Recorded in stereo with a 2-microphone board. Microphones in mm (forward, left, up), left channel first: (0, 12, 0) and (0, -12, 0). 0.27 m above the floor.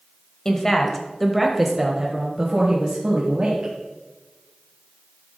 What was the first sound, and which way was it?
A woman speaking, 20° left (ahead or behind).